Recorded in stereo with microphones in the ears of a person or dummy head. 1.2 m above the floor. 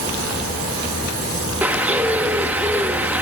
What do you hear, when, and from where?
1.6 s a bird: 10° right (ahead or behind), 1.3 m